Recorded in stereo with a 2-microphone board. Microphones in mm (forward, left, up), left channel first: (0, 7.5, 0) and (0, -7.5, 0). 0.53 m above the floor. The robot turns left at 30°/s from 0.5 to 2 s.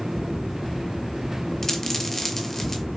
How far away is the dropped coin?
About 0.7 m.